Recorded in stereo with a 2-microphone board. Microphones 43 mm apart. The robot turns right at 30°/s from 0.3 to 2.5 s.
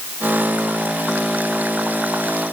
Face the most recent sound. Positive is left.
No sound to turn to.